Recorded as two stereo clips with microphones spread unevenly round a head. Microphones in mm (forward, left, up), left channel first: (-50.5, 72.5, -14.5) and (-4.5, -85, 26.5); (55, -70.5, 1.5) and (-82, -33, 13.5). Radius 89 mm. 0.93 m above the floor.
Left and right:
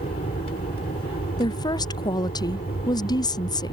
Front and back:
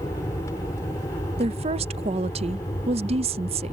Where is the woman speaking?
135° left.